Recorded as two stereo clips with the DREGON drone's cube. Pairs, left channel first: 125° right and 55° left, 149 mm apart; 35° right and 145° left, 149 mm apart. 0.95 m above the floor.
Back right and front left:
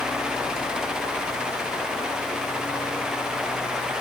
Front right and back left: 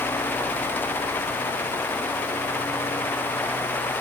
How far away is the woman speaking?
No woman speaking in this recording.